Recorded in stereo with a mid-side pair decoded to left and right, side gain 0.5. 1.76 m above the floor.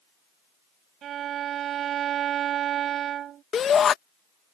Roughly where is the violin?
Ahead right.